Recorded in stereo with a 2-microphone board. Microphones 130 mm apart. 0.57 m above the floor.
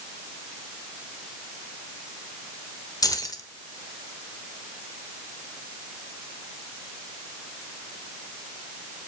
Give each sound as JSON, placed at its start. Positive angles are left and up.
{"t": 3.0, "sound": "keys jangling", "side_deg": 30, "distance_m": 1.1}